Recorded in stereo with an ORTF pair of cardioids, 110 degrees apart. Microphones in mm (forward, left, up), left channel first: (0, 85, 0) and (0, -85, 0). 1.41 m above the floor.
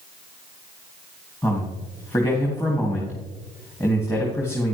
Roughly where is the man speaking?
Ahead.